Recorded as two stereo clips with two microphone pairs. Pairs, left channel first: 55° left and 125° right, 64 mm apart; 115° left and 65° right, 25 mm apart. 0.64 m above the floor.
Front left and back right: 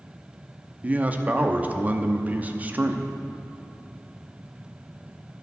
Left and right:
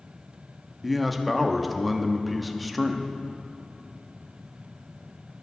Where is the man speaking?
155° right, 0.6 m.